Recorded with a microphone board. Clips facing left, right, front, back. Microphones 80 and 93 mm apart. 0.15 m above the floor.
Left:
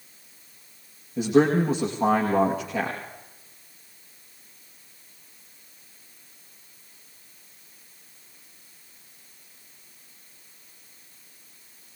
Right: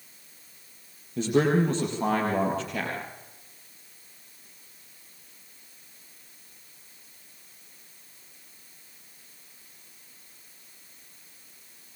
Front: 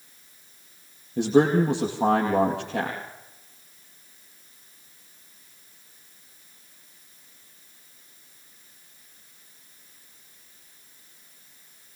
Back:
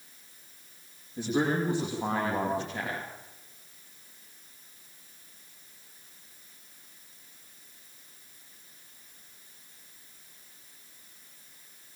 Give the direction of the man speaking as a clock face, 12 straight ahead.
12 o'clock.